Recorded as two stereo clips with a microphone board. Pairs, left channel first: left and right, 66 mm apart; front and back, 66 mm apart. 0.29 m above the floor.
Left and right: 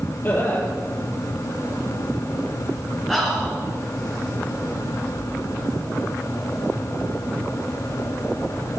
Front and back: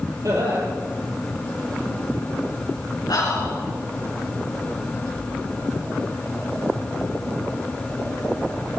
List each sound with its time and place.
0.2 s laughter: 150° left, 7 m
3.1 s whispering: 5° left, 4 m